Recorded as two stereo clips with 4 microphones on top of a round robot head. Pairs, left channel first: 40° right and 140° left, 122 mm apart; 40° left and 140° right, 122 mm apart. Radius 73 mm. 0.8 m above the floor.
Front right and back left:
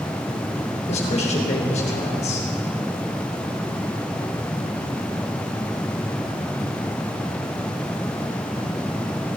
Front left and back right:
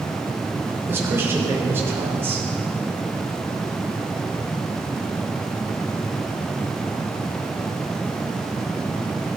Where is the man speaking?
70° right, 3.5 m.